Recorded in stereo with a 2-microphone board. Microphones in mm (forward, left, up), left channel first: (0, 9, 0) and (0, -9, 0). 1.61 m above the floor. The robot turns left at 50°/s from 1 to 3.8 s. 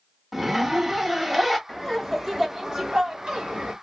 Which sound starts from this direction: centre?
A zipper, at 0.3 s.